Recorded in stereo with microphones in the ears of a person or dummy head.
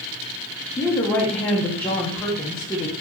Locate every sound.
0.8 s a woman speaking: 15° left (ahead or behind), 0.7 m